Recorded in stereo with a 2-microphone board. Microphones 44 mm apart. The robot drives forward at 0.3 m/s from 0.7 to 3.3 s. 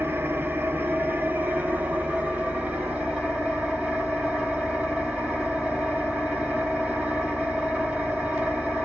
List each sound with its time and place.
0.0 s an engine running: 55° right (ahead or behind), 0.7 m; by 8.8 s 25° right (ahead or behind), 1.2 m